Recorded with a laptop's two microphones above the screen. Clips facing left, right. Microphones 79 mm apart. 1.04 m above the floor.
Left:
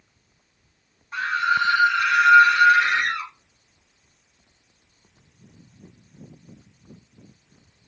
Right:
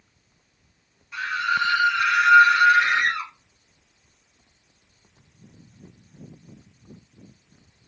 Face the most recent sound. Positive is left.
turn(degrees=-30)  # may be behind; listen again after turning